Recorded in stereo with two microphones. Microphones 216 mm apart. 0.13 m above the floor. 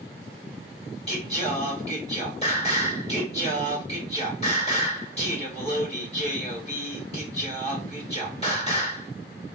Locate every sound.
1.1 s singing: 30° left (ahead or behind), 2.5 m